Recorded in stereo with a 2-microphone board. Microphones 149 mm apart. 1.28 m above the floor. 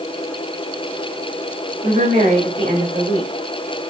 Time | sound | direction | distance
1.8 | a woman speaking | 90° right | 2 m